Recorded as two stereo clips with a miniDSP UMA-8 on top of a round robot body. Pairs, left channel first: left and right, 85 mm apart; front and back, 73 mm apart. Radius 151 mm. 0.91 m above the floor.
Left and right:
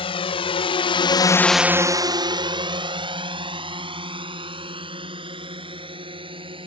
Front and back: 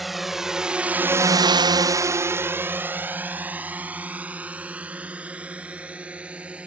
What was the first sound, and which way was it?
A drone, 90° left.